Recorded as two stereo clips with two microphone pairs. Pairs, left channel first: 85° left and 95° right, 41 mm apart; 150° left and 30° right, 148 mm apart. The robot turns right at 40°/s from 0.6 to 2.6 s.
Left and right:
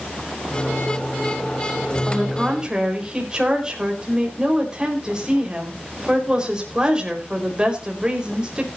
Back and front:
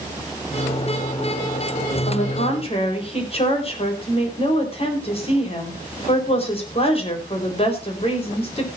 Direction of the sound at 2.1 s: 175° left.